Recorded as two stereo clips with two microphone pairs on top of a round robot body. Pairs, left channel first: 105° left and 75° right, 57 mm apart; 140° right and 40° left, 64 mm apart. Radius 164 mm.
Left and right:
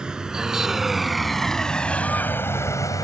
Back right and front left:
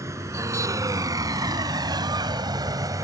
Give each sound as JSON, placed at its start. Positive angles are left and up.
{"t": 0.0, "sound": "a vehicle", "azimuth_deg": 0}